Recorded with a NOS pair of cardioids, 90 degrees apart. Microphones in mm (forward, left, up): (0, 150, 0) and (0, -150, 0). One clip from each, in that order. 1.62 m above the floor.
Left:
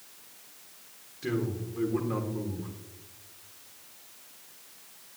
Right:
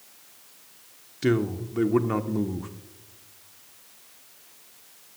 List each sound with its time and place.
1.2 s a man speaking: 60° right, 1.2 m